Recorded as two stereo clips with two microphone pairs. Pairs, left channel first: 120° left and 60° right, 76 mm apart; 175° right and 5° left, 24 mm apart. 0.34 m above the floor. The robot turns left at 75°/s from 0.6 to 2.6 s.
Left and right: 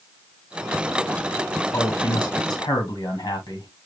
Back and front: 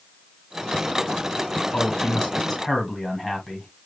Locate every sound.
1.7 s a man speaking: 170° left, 2 m; by 3.7 s 105° left, 2 m